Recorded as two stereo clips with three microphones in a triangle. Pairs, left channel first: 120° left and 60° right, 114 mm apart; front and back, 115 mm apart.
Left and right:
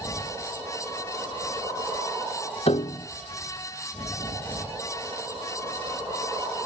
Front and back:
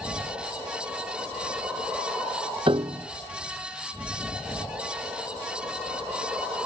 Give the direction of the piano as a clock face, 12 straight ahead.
7 o'clock.